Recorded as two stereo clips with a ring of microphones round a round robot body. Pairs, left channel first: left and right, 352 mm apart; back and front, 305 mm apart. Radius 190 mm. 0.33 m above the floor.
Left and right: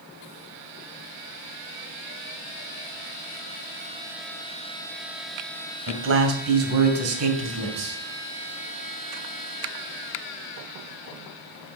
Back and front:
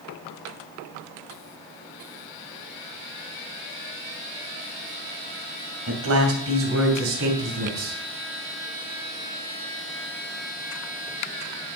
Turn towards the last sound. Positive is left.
turn(degrees=-50)